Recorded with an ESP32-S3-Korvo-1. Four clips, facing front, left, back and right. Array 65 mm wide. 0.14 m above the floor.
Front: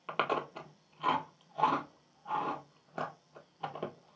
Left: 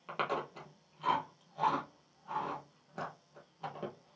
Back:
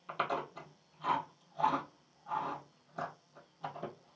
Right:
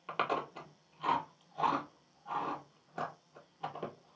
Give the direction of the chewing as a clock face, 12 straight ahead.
12 o'clock.